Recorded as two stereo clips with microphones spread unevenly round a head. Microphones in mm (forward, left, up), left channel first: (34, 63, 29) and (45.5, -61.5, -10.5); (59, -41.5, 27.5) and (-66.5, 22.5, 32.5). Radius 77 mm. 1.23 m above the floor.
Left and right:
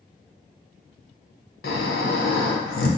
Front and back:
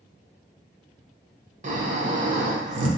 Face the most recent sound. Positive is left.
turn(degrees=110)